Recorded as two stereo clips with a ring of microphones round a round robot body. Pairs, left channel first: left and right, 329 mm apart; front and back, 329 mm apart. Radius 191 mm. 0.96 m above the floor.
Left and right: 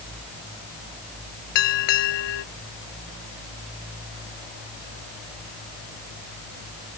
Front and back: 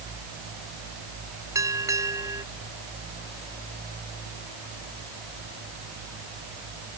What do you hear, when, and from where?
1.6 s a bell: 95° left